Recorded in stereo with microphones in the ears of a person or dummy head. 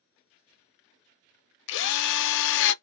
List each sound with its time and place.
1.7 s a drill: 65° left (ahead or behind), 0.6 m